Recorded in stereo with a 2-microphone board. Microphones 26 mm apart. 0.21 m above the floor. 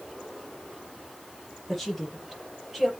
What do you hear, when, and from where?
1.7 s a woman speaking: 5° right (ahead or behind), 5.5 m